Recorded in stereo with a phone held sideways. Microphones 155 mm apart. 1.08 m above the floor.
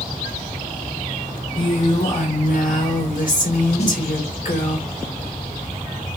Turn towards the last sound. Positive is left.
turn(degrees=45)  # may be behind; listen again after turning